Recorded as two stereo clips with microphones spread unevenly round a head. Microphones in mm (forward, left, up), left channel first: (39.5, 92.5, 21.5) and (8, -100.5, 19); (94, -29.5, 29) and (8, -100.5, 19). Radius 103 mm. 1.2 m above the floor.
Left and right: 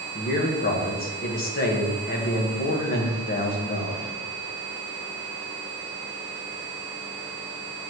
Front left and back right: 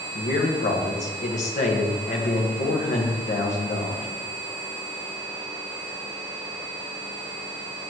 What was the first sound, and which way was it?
A man speaking, 40° left.